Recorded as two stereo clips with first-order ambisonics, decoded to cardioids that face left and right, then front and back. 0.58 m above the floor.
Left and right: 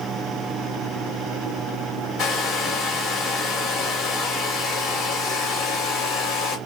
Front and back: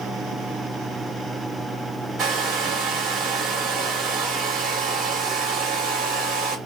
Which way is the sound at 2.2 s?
140° left.